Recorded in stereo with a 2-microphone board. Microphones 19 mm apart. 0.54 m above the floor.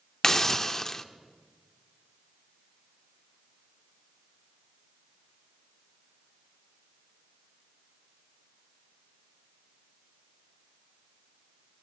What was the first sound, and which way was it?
A hiss, 25° left (ahead or behind).